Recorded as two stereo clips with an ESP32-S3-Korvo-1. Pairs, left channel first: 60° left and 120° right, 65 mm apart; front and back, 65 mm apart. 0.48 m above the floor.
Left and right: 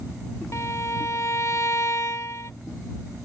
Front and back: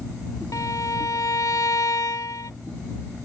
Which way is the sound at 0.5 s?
25° left.